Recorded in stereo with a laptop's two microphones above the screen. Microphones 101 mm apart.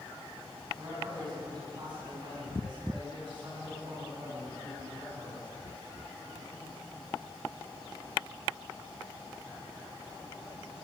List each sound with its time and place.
0.8 s a man speaking: 40° right (ahead or behind), 9.5 m; by 5.5 s 55° right (ahead or behind), 10.5 m